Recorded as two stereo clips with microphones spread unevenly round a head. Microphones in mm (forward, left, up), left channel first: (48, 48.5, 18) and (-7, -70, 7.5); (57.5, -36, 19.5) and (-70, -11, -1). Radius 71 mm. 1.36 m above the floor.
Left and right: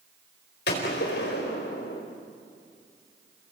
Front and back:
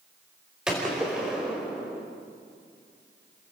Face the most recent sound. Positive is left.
turn(degrees=80)